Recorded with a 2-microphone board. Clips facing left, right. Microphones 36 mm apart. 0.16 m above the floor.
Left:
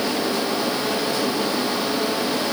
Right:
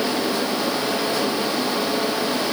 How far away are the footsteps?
No footsteps in this recording.